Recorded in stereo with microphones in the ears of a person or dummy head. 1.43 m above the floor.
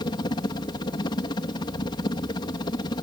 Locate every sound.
0.0 s a helicopter: 25° left (ahead or behind)